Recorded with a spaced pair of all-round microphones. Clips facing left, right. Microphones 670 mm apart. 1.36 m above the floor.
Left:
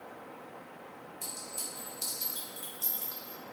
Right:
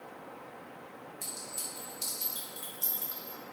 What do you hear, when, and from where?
1.2 s a clink: 5° right (ahead or behind), 0.7 m